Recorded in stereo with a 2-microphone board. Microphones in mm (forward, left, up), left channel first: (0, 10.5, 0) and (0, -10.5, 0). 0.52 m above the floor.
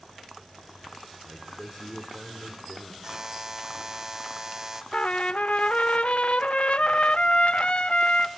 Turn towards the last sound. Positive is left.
turn(degrees=65)  # may be behind; listen again after turning